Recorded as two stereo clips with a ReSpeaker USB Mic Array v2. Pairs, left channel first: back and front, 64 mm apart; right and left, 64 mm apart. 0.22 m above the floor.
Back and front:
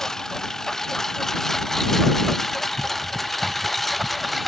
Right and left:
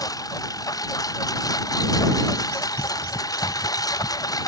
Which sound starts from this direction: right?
A lawn mower, at 0.0 s.